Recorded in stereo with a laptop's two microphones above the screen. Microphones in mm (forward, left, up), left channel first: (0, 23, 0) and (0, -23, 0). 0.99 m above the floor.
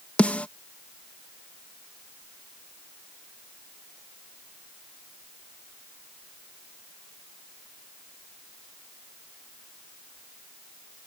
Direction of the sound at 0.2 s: 30° left (ahead or behind).